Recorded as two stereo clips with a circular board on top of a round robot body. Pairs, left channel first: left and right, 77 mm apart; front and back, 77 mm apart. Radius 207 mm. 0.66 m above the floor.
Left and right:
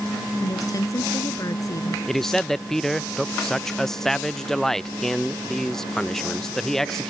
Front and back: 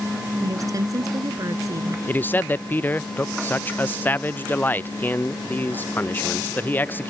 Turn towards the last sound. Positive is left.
turn(degrees=15)